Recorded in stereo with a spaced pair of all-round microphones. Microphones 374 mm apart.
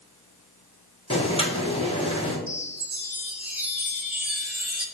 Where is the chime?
5° right (ahead or behind), 0.6 m.